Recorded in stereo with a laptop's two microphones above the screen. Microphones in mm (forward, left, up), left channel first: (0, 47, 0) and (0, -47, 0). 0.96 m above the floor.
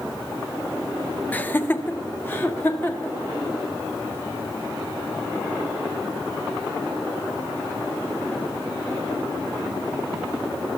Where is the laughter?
15° left (ahead or behind), 0.6 m; by 3.1 s 20° left (ahead or behind), 3 m.